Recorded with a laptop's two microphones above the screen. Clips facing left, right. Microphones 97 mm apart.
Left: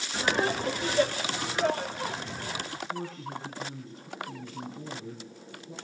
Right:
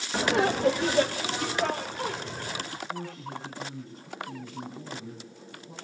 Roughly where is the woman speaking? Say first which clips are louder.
Left 1 dB; right.